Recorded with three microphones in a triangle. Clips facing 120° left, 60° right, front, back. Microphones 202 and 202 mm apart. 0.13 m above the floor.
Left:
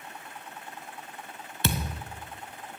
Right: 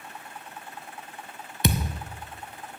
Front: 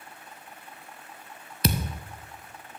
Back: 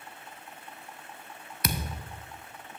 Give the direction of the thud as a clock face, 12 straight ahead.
12 o'clock.